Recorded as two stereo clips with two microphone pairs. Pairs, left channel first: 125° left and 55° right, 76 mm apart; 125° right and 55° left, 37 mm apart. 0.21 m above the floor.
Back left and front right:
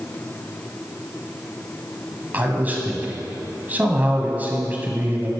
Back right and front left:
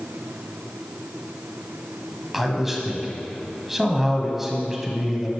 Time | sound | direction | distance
2.3 | a man speaking | 20° right | 1.2 m